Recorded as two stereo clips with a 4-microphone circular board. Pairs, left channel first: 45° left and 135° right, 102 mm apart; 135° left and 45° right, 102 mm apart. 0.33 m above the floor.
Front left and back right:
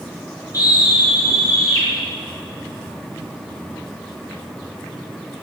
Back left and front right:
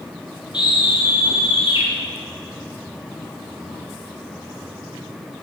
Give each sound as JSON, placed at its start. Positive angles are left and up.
{"t": 0.5, "sound": "a scream", "azimuth_deg": 100, "distance_m": 6.0}